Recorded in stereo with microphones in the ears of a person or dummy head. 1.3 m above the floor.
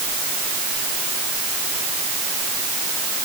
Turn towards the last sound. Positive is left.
No sound to turn to.